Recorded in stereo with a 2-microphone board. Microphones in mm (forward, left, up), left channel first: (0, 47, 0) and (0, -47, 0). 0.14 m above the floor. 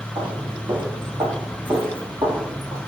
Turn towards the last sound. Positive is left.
turn(degrees=-55)  # may be behind; listen again after turning